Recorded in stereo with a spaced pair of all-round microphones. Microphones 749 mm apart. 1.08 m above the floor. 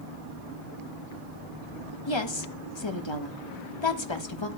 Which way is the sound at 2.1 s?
35° left (ahead or behind).